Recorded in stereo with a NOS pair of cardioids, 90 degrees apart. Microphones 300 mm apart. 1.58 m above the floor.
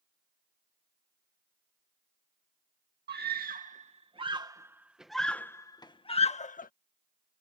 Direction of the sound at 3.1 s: 35° right.